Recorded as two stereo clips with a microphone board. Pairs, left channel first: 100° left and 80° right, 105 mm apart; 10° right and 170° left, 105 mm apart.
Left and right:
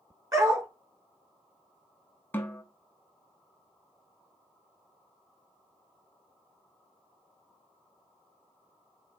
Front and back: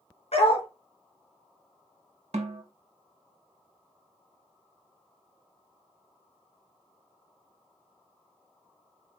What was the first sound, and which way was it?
A dog barking, 20° right.